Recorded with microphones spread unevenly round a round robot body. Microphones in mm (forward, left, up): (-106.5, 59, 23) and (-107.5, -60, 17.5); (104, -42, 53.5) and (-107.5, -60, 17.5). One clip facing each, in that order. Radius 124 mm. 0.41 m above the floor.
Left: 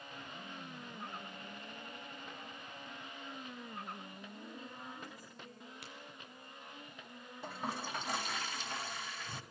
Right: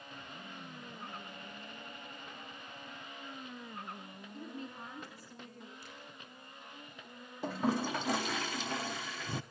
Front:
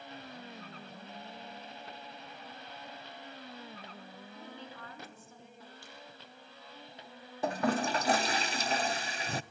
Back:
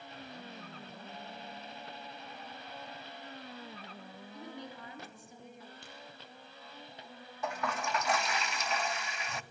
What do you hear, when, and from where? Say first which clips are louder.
4.3 s a woman speaking: right 8 dB, back 4 dB; 100° right, 6.5 m
5.8 s a crack: even, back 1 dB; 110° left, 9 m
7.4 s a toilet flushing: right 9 dB, front 7 dB; 50° right, 0.8 m